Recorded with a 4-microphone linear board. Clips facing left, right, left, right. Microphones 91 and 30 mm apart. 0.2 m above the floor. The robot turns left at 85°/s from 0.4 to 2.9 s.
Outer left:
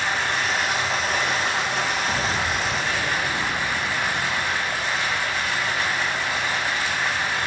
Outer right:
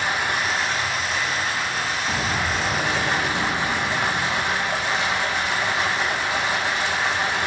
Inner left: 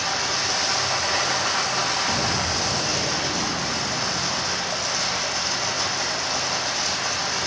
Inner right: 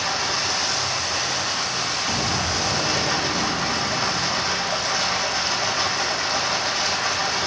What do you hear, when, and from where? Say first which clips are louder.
0.0 s running water: outer right 1 dB, inner right 1 dB; 165° right, 2.5 m; by 7.5 s 20° right, 2.5 m
2.1 s an explosion: even, even; centre (ahead or behind), 0.6 m; by 5.0 s 25° right (ahead or behind), 0.6 m